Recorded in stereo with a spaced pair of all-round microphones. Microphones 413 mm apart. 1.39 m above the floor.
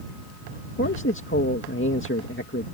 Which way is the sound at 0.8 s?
30° left (ahead or behind).